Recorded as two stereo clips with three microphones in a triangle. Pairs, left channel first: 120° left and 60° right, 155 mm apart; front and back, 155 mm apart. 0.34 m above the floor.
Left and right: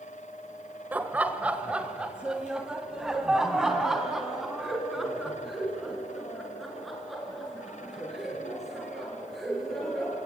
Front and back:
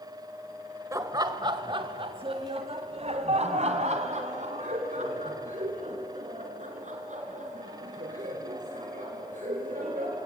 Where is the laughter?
130° right, 1.2 m; by 10.2 s 150° right, 6 m.